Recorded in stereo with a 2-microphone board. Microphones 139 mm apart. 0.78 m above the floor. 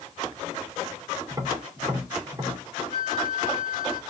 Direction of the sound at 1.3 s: 25° right (ahead or behind).